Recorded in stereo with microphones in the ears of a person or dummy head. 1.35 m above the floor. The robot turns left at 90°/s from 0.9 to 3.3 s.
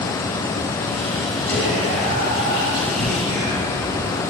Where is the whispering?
10° right, 1.0 m; by 4.2 s 170° right, 1.0 m.